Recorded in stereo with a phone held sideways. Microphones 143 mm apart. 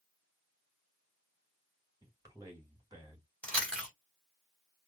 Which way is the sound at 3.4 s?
10° left (ahead or behind).